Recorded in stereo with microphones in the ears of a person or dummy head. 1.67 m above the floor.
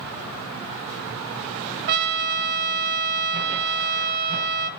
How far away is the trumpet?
About 0.8 m.